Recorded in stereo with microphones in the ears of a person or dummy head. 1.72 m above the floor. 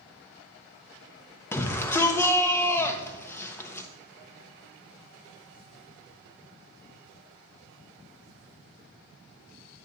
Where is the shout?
15° left (ahead or behind), 0.6 m.